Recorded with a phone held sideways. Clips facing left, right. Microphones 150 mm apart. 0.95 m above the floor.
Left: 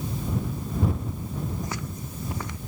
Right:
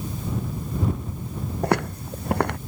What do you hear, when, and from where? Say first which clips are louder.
1.6 s footsteps: right 11 dB; 65° right (ahead or behind)